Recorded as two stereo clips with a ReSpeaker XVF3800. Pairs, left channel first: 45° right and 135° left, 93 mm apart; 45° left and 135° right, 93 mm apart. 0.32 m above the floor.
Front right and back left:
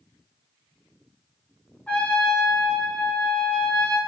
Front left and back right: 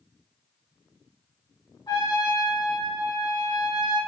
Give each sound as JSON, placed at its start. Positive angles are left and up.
{"t": 1.9, "sound": "a trumpet", "azimuth_deg": 25, "distance_m": 1.0}